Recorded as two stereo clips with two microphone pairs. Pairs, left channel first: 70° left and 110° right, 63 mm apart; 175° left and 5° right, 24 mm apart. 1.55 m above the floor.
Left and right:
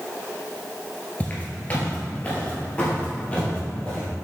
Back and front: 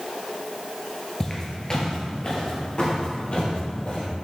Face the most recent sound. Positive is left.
turn(degrees=145)